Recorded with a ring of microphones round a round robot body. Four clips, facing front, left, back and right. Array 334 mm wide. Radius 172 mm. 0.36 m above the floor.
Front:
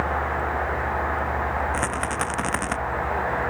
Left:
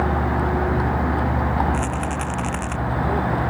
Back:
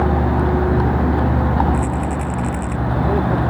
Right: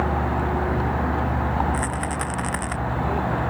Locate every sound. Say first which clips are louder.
0.0 s a vehicle: left 2 dB, back 7 dB; 175° left
1.7 s a rattle: left 2 dB, back 4 dB; 5° right